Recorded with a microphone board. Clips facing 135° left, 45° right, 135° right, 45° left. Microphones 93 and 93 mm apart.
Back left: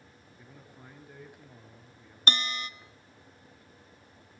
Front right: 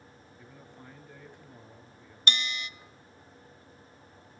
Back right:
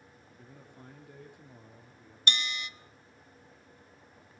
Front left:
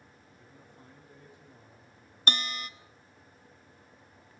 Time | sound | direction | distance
0.4 | a man speaking | 145° right | 2.5 m
2.3 | a bell | 85° left | 0.6 m